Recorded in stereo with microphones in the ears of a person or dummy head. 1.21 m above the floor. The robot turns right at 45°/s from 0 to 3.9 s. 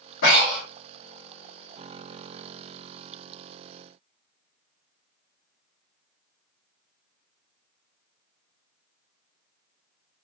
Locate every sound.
0.2 s breathing: 60° left (ahead or behind), 1.2 m; by 0.7 s 45° left (ahead or behind), 1.2 m